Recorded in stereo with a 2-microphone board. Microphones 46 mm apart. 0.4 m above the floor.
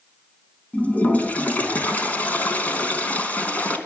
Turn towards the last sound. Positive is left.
turn(degrees=35)  # may be behind; listen again after turning